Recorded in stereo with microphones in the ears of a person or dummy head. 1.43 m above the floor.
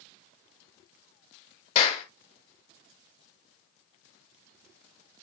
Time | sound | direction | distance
1.8 | a clap | 40° left (ahead or behind) | 2 m